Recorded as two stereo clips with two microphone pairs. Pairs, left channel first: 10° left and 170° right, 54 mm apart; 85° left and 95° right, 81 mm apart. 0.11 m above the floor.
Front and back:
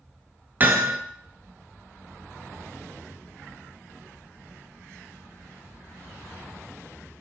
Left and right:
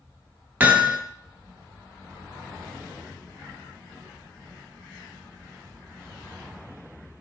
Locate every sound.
0.6 s hammering: 150° right, 0.9 m